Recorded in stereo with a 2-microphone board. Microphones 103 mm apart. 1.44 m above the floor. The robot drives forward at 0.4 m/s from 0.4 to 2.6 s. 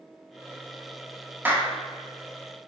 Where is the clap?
20° right (ahead or behind), 0.6 m.